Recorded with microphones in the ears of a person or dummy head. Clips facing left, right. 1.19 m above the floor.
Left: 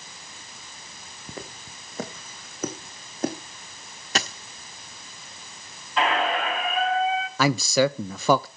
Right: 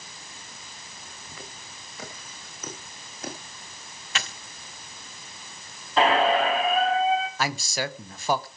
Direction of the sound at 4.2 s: 45° left (ahead or behind).